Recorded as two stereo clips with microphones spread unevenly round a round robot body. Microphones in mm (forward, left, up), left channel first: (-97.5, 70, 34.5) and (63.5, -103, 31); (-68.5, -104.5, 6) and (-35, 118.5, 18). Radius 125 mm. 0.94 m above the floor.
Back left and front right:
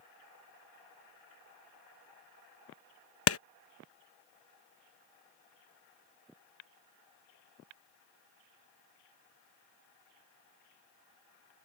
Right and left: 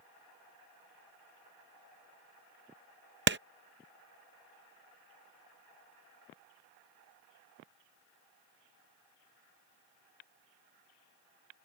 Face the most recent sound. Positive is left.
turn(degrees=120)